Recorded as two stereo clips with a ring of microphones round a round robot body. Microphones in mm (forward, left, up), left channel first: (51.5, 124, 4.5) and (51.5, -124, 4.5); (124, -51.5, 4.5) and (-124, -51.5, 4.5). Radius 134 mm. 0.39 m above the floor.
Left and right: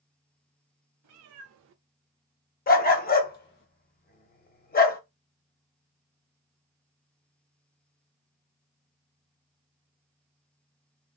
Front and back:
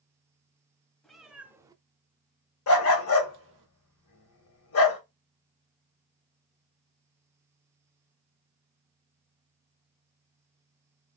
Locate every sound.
1.0 s a cat meowing: 90° right, 0.8 m; by 3.7 s 135° left, 0.9 m
2.7 s a dog barking: 35° left, 0.8 m